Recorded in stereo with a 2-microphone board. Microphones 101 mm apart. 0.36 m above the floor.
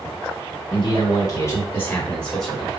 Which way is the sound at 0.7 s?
45° left (ahead or behind).